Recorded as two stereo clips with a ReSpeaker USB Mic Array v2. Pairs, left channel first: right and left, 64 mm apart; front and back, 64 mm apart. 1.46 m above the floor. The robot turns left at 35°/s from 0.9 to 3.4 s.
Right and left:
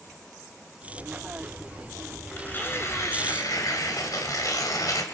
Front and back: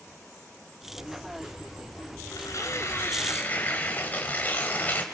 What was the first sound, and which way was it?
Tearing paper, 25° right.